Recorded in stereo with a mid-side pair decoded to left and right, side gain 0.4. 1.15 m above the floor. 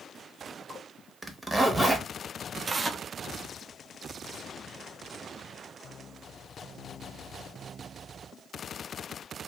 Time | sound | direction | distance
1.2 | a zipper | 20° right | 0.9 m
2.7 | tearing paper | 40° right | 0.5 m